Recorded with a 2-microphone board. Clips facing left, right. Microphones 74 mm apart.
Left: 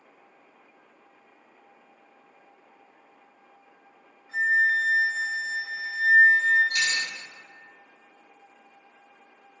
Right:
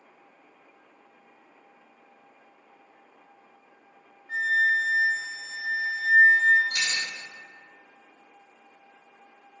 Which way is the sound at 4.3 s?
65° right (ahead or behind).